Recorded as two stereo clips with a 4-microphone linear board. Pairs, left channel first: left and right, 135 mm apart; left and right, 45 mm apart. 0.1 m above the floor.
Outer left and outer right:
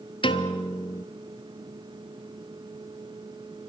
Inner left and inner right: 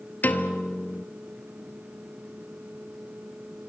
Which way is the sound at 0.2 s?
40° left (ahead or behind).